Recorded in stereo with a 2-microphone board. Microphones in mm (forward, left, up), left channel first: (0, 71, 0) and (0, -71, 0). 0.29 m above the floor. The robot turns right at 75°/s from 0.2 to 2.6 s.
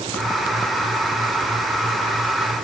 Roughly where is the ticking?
I don't hear ticking.